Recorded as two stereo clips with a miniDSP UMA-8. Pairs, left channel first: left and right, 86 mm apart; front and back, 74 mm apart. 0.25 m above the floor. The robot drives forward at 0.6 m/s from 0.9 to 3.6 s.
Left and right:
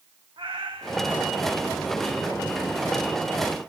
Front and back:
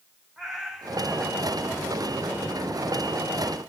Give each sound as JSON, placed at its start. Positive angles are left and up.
{"t": 0.4, "sound": "a cat meowing", "azimuth_deg": -90, "distance_m": 3.5}